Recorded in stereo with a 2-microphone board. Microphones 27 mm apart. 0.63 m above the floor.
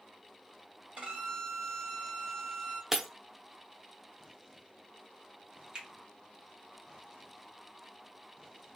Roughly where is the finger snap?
Right.